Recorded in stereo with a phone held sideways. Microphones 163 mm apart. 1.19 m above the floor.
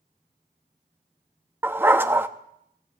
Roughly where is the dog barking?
Centre.